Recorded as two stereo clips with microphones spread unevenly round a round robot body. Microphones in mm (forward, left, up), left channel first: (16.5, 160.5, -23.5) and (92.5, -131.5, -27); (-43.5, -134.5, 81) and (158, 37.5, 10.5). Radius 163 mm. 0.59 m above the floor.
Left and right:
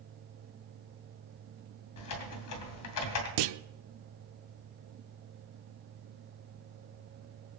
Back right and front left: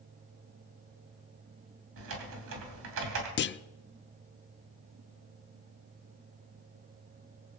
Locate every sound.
2.0 s typing on a keyboard: 80° left, 2.5 m
3.4 s a clunk: 85° right, 0.5 m